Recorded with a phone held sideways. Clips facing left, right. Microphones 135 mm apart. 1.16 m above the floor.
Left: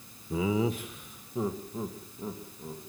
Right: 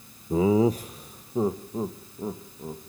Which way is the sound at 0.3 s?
45° right (ahead or behind).